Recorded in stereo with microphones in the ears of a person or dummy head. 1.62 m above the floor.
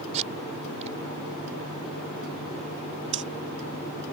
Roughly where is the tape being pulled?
Right.